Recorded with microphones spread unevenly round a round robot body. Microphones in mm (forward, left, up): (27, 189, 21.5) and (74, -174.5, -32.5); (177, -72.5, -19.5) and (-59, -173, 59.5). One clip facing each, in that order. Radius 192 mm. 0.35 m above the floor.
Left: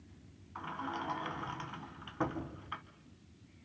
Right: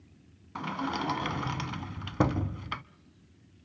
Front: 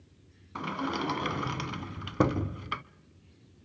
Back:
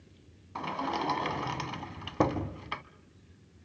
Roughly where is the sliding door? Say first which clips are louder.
Right 9 dB, front 2 dB; ahead right.